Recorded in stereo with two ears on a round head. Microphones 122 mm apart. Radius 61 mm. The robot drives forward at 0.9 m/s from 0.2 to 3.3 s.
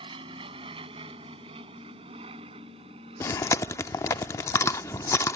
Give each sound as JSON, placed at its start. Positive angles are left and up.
{"t": 0.0, "sound": "an aircraft", "side_deg": -40}
{"t": 3.2, "sound": "chewing", "side_deg": 20}